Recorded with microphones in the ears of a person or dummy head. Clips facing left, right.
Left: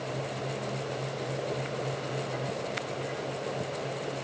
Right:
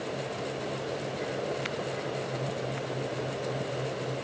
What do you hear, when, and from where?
Only background noise.